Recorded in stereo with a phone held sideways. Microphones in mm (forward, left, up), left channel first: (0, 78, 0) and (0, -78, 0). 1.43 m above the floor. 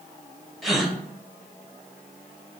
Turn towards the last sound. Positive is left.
turn(degrees=0)  # may be behind; listen again after turning